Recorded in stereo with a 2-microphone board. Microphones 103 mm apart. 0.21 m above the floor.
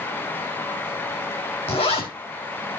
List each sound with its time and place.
1.7 s a zipper: 65° left (ahead or behind), 3.5 m